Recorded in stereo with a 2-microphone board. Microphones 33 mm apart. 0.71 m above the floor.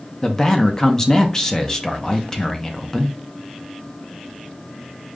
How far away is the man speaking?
About 0.6 m.